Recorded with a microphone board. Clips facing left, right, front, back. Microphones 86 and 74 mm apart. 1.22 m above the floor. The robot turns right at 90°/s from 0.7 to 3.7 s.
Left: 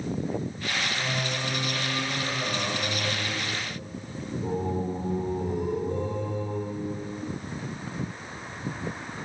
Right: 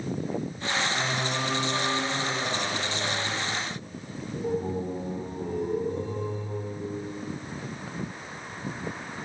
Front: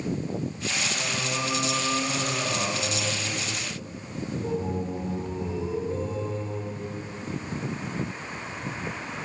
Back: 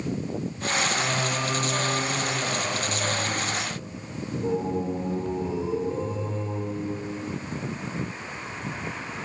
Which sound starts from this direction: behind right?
Singing, at 0.9 s.